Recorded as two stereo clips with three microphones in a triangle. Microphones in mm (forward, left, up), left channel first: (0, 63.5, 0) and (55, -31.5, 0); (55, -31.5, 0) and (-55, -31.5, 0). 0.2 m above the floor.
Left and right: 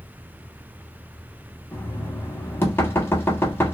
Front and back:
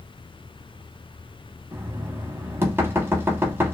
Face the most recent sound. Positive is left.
turn(degrees=150)